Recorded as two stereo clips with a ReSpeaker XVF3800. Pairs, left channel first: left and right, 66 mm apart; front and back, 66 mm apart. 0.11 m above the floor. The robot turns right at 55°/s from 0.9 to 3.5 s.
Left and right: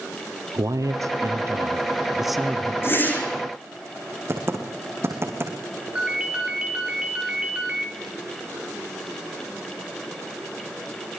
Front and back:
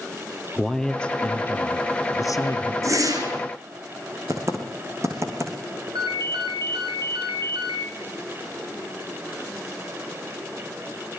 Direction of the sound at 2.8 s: 140° left.